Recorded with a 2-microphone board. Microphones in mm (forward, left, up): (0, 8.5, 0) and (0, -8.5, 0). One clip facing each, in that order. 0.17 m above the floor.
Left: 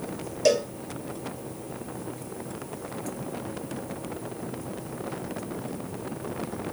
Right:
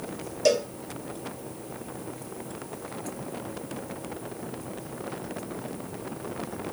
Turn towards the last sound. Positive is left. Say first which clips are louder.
# left 1 dB
turn(degrees=-5)  # may be behind; listen again after turning